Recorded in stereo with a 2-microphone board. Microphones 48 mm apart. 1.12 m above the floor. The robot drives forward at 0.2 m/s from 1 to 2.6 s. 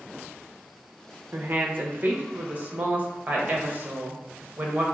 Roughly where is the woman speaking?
Right.